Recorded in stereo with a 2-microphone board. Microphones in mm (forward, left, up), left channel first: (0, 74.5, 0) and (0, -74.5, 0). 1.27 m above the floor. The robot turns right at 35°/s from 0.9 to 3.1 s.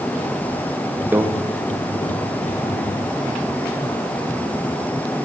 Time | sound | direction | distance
1.1 | a microwave | 10° right (ahead or behind) | 0.9 m